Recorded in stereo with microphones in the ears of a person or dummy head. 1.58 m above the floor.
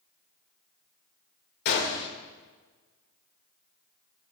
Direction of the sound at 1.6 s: 65° left (ahead or behind).